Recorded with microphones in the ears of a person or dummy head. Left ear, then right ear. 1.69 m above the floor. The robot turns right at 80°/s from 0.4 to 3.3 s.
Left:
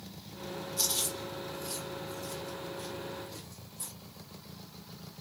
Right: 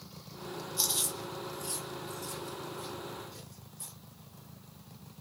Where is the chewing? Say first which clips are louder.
Even; 5° right (ahead or behind), 1.5 m; by 3.9 s 20° left (ahead or behind), 1.5 m.